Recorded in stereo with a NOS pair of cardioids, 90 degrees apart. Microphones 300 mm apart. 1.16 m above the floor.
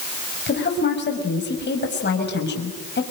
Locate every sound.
0.5 s a woman speaking: 35° left, 6 m